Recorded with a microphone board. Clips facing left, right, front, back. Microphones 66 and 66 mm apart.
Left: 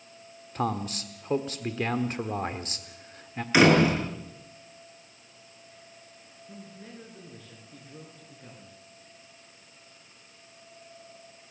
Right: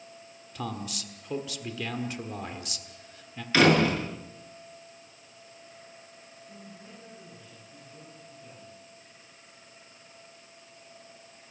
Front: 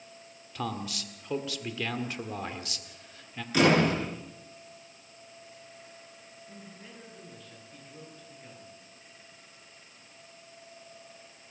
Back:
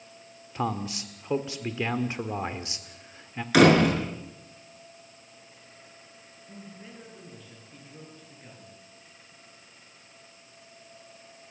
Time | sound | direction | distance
0.6 | a man speaking | 125° left | 1.4 m
3.5 | a door slam | 165° left | 6 m
6.5 | a man speaking | 100° left | 7.5 m